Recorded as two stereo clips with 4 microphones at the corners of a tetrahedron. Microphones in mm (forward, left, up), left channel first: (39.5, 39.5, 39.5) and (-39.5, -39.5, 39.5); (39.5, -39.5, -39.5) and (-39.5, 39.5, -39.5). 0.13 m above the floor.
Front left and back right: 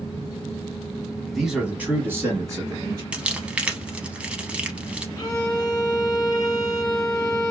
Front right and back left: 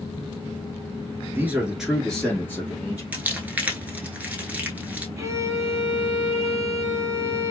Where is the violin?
85° left, 1.0 m.